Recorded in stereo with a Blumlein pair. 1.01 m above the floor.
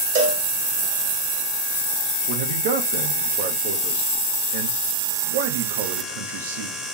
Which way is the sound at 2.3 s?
55° right.